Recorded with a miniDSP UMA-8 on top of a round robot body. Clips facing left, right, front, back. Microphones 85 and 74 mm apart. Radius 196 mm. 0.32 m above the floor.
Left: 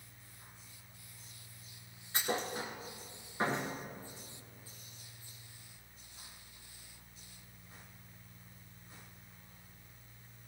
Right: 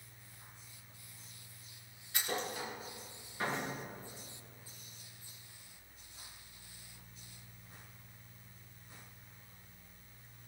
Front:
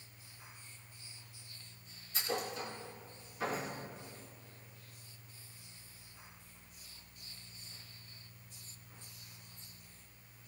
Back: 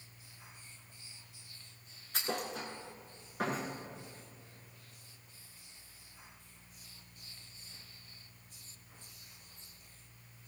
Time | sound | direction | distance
2.1 | a thud | 150° left | 2.5 m